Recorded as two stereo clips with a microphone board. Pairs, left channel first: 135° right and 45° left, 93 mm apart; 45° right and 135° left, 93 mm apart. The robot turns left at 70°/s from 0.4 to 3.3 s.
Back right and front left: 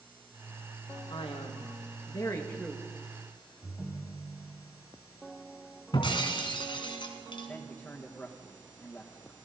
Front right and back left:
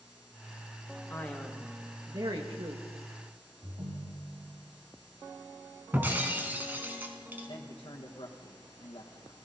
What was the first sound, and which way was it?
A man speaking, 110° right.